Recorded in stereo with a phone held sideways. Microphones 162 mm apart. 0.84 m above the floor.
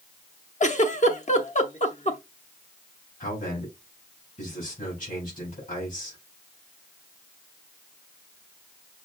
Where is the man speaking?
55° left (ahead or behind), 4 m.